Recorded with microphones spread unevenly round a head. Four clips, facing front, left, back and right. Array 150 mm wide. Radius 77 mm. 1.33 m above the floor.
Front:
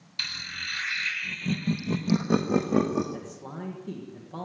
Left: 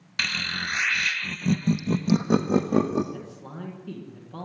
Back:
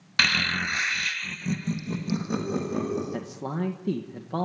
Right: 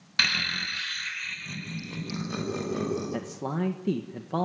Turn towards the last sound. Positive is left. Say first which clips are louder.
# right 7 dB, back 7 dB
turn(degrees=-125)